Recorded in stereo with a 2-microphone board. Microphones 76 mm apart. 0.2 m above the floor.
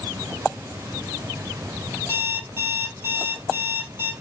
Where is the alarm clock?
35° right (ahead or behind), 3.5 m.